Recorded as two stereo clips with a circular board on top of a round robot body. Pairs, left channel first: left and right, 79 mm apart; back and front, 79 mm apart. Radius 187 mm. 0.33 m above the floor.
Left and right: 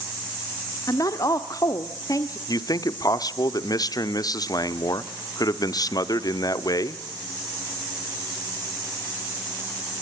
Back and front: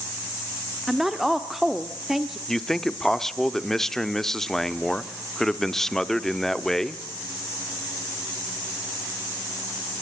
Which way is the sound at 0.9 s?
85° left.